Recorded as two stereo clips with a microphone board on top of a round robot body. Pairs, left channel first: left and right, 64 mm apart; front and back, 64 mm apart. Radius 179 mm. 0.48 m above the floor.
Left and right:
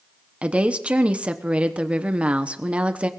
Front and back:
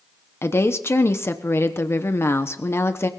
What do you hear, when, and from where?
0.4 s a woman speaking: 25° right, 1.1 m